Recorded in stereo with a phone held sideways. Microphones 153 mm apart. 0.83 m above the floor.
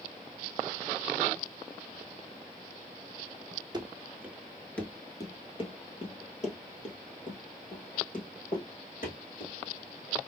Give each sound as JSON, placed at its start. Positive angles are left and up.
{"t": 3.7, "sound": "running footsteps", "side_deg": -30, "distance_m": 0.9}